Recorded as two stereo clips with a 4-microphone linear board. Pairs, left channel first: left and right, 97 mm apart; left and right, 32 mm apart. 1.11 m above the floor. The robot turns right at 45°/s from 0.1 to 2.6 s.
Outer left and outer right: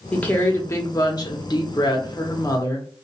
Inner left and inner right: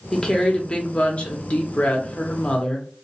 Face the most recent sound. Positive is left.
turn(degrees=130)